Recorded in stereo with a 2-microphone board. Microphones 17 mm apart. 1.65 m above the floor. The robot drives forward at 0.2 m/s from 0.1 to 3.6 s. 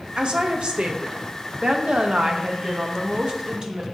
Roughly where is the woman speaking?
Right.